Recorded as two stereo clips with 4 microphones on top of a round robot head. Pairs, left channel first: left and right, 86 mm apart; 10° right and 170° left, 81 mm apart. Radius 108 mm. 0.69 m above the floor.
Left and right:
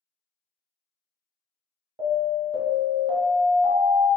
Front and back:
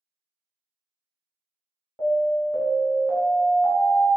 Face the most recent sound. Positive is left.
turn(degrees=-70)